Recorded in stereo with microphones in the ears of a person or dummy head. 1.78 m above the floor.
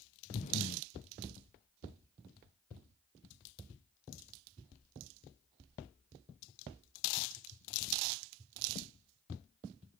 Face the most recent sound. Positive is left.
turn(degrees=40)  # may be behind; listen again after turning